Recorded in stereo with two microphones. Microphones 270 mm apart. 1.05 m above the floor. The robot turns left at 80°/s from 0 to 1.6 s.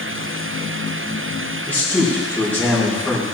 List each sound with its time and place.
1.7 s a man speaking: 5° left (ahead or behind), 3 m